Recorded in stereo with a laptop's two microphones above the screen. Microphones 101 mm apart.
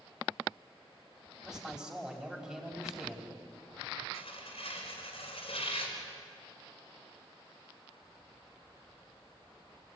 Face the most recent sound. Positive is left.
turn(degrees=70)  # may be behind; listen again after turning